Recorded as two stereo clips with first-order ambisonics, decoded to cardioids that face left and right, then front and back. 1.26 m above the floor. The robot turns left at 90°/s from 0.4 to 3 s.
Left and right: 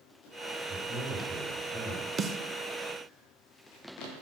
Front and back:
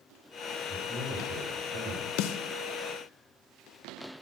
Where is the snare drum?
25° right, 0.6 m; by 2.4 s 40° right, 0.6 m.